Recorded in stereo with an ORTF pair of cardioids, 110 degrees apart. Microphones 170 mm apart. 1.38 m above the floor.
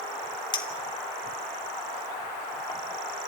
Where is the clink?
25° left, 3 m.